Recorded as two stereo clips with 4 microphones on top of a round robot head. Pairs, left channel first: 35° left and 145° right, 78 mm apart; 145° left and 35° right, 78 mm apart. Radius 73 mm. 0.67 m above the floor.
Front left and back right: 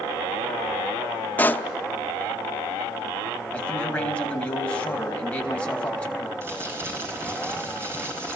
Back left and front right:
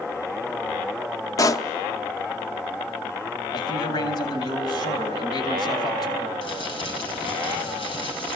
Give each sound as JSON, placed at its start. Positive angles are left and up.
{"t": 1.4, "sound": "a pop", "azimuth_deg": 105, "distance_m": 0.9}
{"t": 3.5, "sound": "a man speaking", "azimuth_deg": 110, "distance_m": 4.0}
{"t": 6.4, "sound": "crumpling", "azimuth_deg": 155, "distance_m": 6.5}